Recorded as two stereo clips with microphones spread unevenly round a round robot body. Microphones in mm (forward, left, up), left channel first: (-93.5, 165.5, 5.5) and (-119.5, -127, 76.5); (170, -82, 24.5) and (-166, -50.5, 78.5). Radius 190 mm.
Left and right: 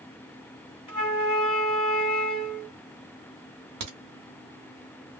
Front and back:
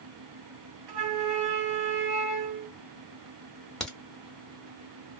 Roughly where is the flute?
Behind left.